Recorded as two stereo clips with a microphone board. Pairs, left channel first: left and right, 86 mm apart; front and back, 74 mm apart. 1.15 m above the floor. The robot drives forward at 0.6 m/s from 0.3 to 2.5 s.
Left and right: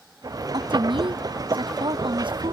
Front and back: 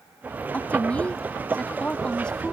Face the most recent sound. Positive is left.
turn(degrees=-80)